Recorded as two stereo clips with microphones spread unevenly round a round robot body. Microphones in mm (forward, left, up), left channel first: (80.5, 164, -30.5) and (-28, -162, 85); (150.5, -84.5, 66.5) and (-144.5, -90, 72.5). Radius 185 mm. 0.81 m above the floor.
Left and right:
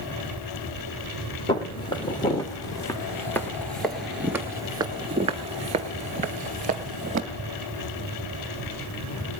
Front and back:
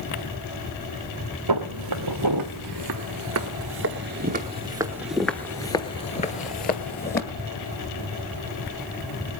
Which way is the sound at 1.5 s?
155° left.